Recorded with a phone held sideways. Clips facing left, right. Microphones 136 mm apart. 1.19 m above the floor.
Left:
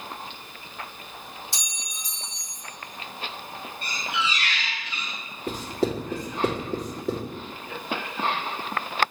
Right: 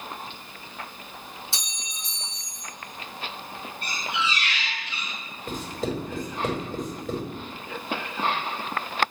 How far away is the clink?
About 1.9 m.